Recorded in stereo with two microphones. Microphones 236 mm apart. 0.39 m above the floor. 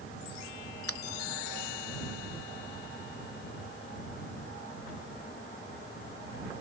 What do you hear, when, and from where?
0.9 s a finger snap: 70° left (ahead or behind)